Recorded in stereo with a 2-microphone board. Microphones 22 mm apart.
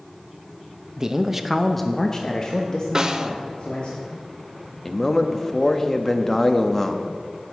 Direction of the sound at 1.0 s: 25° right (ahead or behind).